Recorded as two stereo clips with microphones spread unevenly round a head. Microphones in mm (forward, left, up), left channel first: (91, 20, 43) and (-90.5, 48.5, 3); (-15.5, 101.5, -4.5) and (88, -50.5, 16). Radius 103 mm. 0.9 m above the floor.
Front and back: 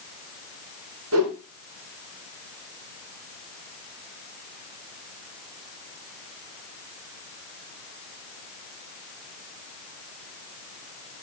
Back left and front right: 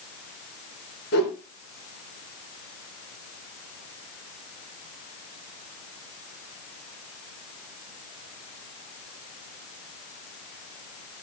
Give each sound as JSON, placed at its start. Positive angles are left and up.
{"t": 1.1, "sound": "a whoosh", "azimuth_deg": 165, "distance_m": 2.5}